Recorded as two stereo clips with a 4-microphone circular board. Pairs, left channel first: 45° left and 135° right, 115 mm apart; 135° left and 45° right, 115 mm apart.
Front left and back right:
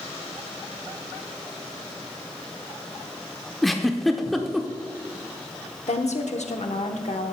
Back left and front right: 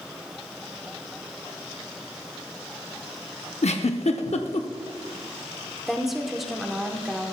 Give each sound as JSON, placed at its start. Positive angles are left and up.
{"t": 3.6, "sound": "a giggle", "azimuth_deg": 135, "distance_m": 0.7}
{"t": 5.9, "sound": "a woman speaking", "azimuth_deg": 45, "distance_m": 1.0}